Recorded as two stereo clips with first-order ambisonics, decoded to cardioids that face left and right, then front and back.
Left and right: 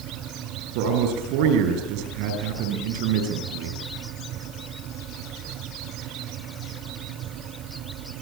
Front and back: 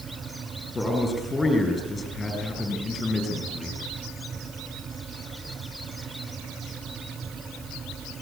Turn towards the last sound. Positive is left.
turn(degrees=-80)